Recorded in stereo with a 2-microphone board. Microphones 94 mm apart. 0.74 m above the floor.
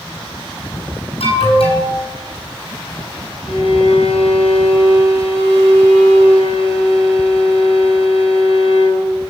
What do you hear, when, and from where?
1.2 s an alarm: 75° left (ahead or behind), 6.5 m
3.5 s a violin: 80° left, 5.5 m